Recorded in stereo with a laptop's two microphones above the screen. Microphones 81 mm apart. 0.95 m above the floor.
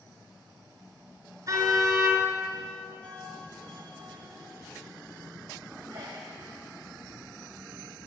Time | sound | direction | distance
1.5 | a car horn | 45° right (ahead or behind) | 5.5 m
3.0 | a bell | 60° right (ahead or behind) | 5 m
5.9 | a sneeze | 65° right (ahead or behind) | 6 m